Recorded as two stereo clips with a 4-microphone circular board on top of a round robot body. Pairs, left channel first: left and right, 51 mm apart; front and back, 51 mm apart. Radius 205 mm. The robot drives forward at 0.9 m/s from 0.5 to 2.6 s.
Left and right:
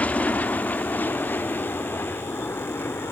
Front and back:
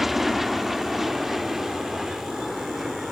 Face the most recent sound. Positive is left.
turn(degrees=95)